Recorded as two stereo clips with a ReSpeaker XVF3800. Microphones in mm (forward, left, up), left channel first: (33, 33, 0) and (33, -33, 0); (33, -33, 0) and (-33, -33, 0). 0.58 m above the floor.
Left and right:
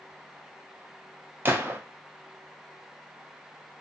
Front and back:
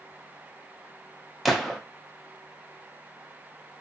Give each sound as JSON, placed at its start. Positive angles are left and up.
{"t": 1.4, "sound": "a gunshot", "azimuth_deg": -90, "distance_m": 0.6}